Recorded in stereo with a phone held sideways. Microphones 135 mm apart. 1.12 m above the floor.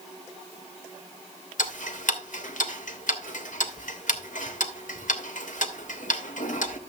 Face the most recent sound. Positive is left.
turn(degrees=70)  # may be behind; listen again after turning